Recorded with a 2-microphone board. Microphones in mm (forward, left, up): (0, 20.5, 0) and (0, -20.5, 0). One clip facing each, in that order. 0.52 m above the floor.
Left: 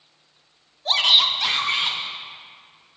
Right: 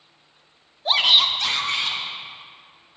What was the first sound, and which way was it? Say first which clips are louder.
A shout: even; 20° right (ahead or behind).